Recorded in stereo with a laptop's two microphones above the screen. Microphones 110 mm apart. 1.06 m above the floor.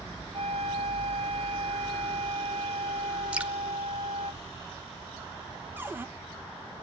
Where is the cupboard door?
20° right (ahead or behind), 0.8 m.